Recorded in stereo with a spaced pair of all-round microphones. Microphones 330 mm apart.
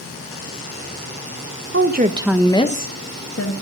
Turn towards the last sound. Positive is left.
turn(degrees=50)  # may be behind; listen again after turning